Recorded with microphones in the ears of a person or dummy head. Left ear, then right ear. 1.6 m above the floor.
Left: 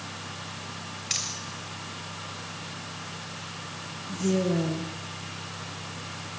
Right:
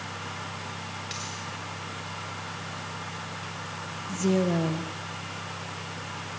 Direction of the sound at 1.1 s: 30° left (ahead or behind).